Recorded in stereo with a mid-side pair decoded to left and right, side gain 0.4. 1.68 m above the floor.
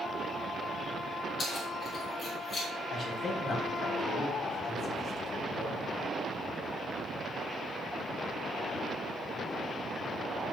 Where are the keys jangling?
60° left, 3 m; by 2.7 s 55° left, 4.5 m.